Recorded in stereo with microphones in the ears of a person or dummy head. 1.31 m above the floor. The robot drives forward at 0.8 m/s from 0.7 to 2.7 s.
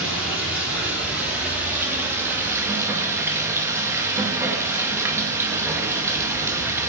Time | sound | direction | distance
0.0 | running water | 10° right (ahead or behind) | 3.5 m